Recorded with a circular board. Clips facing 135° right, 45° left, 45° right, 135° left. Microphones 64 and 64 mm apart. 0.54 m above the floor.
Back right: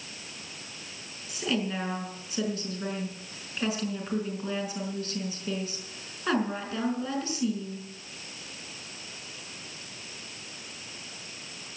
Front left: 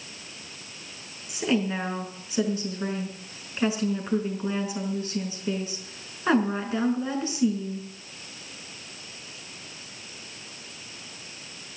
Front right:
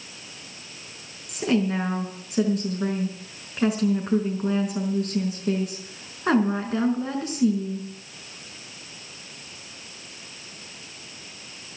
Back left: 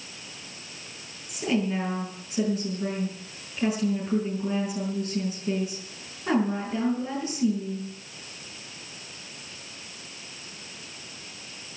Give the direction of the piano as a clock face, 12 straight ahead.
No piano in this recording.